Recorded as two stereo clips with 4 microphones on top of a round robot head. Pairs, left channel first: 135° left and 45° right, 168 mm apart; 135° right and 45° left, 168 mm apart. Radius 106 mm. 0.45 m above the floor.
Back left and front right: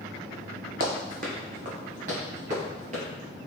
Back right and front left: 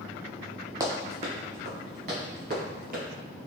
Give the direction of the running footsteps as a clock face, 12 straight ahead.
1 o'clock.